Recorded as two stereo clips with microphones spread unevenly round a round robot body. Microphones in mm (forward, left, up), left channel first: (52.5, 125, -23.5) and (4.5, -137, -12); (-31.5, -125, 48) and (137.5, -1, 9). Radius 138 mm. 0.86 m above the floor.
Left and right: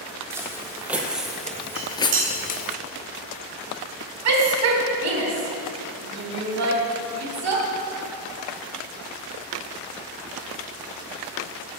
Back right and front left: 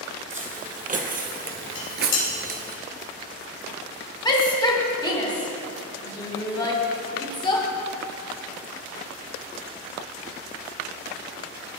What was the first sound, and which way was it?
Footsteps, 20° right.